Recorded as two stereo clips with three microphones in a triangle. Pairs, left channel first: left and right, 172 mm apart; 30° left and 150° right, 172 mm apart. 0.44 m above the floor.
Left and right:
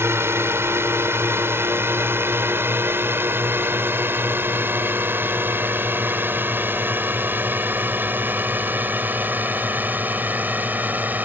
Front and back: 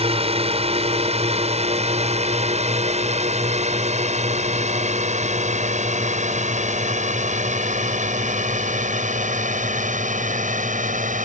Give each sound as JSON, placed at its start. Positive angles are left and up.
{"t": 0.0, "sound": "a drone", "azimuth_deg": -155}